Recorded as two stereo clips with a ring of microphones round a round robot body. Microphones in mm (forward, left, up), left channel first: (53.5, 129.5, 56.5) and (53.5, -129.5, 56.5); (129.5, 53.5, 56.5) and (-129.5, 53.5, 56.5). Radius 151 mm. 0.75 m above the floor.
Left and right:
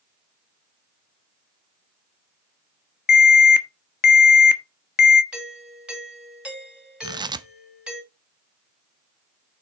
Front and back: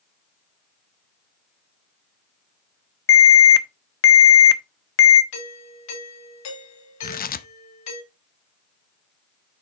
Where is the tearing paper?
25° right, 0.7 m.